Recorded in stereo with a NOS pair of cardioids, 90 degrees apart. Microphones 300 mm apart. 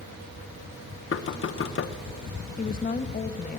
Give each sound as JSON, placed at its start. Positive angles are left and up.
{"t": 1.1, "sound": "knocking", "azimuth_deg": 45, "distance_m": 0.9}
{"t": 2.6, "sound": "a woman speaking", "azimuth_deg": 30, "distance_m": 1.1}